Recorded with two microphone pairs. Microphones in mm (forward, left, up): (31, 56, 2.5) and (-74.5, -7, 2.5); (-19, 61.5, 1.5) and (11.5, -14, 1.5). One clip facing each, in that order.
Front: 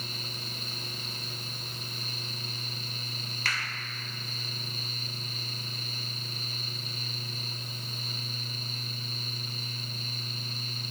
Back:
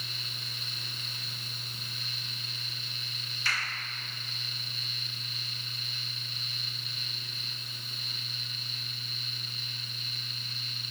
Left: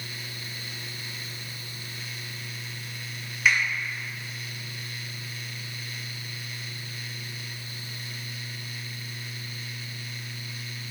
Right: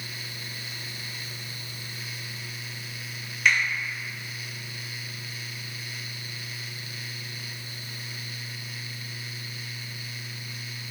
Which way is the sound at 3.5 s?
30° left.